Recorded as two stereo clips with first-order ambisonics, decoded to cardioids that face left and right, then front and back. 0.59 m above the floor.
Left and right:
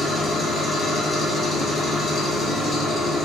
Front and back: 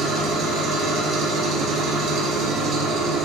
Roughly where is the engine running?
Behind.